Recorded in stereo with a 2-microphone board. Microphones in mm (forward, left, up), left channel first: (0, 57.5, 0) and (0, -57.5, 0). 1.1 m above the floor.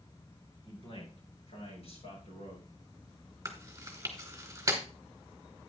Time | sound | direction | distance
0.6 | a man speaking | 55° left (ahead or behind) | 6.5 m
3.5 | chewing | 25° right (ahead or behind) | 3 m